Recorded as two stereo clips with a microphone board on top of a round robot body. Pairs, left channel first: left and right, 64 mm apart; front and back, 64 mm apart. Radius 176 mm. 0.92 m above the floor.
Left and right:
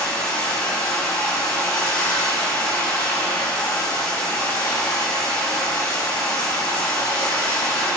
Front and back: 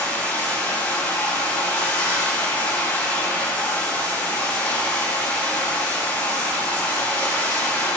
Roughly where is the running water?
Ahead left.